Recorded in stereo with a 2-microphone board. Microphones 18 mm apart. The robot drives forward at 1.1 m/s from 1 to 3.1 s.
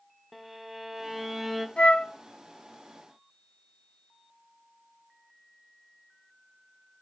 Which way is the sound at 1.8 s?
80° left.